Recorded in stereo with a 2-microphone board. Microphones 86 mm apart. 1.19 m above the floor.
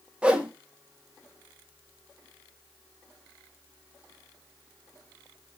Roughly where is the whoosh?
Centre.